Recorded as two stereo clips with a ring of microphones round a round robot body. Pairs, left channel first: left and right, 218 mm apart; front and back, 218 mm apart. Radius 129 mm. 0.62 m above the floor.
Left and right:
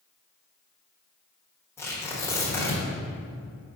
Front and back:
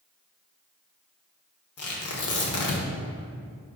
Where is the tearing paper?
10° left, 1.3 m.